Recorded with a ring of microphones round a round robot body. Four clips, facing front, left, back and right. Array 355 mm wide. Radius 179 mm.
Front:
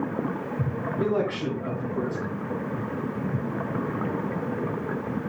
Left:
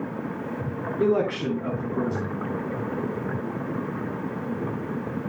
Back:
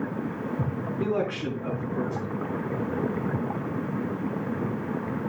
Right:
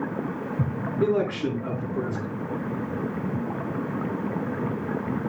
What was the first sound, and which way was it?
A man speaking, 80° left.